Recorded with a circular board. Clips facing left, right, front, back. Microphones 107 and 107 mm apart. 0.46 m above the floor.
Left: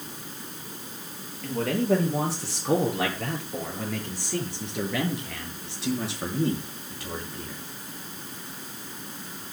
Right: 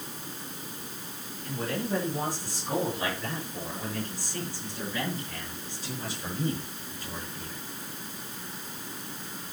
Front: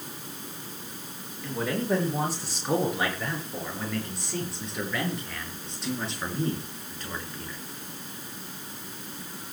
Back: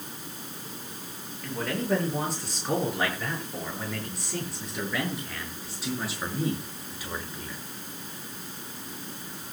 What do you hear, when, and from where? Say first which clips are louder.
1.4 s a man speaking: left 8 dB, front 1 dB; 85° left, 9.5 m; by 7.6 s 100° left, 6 m